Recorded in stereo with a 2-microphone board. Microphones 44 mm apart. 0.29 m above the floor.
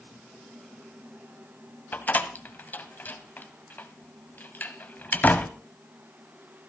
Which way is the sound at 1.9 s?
45° left (ahead or behind).